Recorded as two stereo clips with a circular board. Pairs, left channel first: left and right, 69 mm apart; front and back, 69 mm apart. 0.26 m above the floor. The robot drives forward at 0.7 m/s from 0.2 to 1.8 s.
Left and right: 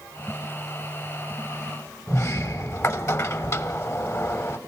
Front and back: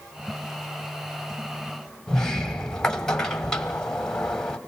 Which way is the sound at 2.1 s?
75° left.